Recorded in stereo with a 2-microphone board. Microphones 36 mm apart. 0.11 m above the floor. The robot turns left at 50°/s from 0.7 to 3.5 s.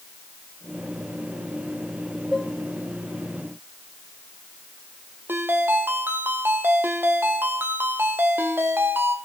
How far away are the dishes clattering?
About 1.2 m.